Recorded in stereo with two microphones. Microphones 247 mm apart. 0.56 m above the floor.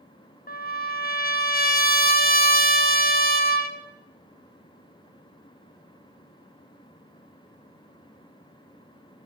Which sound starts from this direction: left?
A trumpet, at 0.5 s.